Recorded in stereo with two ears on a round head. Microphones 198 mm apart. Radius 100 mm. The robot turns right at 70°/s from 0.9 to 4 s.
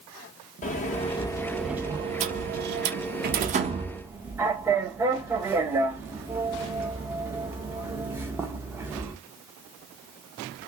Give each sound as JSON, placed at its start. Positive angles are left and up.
{"t": 0.6, "sound": "a sliding door", "azimuth_deg": 130, "distance_m": 0.6}